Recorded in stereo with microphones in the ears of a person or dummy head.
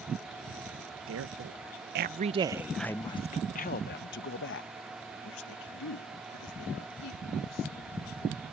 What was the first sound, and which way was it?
A woman speaking, 70° right (ahead or behind).